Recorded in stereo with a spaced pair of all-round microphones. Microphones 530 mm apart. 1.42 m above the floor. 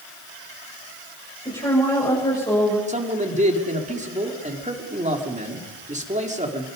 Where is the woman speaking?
10° left (ahead or behind), 7.5 m.